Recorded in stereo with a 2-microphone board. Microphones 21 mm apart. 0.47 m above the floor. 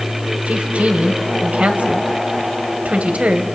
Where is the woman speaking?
65° right (ahead or behind), 3 m.